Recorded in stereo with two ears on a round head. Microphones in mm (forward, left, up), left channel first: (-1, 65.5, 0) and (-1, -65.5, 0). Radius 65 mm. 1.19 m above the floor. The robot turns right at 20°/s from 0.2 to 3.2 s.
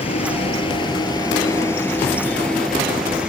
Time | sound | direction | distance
0.0 | a vehicle | 45° left (ahead or behind) | ?